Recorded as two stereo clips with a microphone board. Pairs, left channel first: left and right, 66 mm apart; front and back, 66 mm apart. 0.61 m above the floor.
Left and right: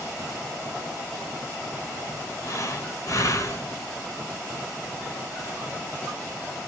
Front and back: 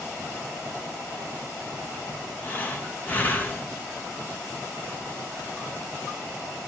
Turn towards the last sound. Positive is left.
turn(degrees=60)